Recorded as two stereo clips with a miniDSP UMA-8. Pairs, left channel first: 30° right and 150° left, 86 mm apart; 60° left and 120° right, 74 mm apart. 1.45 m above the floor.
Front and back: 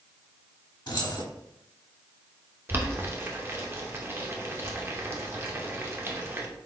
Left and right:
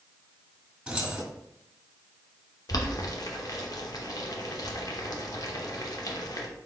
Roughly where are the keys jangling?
Ahead right.